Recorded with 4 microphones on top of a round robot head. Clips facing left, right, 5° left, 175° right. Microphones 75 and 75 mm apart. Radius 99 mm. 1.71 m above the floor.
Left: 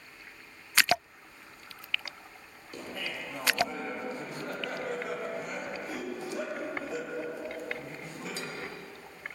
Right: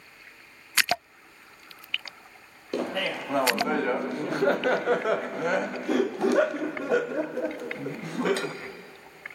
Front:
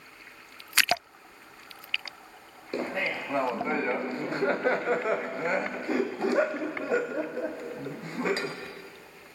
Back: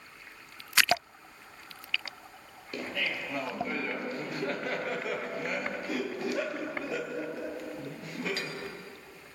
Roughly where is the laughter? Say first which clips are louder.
Right 11 dB, front 4 dB; ahead right.